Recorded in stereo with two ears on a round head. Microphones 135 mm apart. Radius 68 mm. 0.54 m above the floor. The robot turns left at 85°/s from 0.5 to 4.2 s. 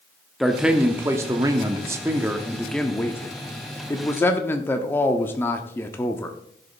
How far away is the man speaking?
About 0.9 m.